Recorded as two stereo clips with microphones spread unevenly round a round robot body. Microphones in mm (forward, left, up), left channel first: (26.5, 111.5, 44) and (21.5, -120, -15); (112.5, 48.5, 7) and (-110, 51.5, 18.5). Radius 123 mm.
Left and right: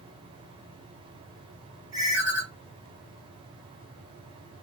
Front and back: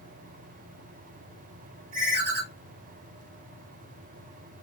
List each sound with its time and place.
1.9 s a ringtone: 165° right, 1.5 m